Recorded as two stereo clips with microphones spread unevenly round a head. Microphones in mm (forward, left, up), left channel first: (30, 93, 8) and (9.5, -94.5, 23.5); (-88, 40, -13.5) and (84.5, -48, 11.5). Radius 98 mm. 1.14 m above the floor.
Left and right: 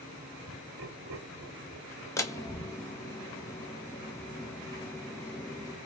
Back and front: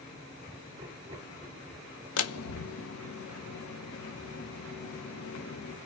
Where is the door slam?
160° left, 0.8 m.